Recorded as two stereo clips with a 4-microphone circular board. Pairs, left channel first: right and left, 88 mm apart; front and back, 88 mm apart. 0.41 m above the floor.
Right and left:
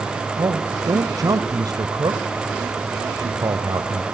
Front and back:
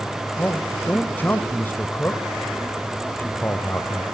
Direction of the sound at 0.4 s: 60° left.